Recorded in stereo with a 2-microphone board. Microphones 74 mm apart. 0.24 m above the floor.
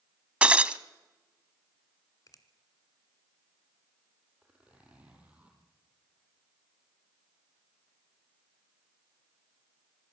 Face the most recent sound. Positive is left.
turn(degrees=-15)  # may be behind; listen again after turning